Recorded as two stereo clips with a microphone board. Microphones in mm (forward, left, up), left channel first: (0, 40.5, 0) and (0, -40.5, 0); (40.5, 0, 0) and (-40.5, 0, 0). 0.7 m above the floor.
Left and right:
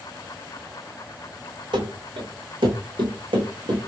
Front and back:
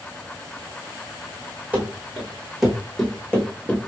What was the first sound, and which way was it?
Running footsteps, 110° right.